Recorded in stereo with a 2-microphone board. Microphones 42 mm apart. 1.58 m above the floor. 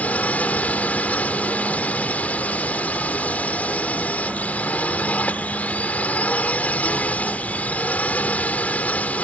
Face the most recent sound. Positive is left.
turn(degrees=35)  # may be behind; listen again after turning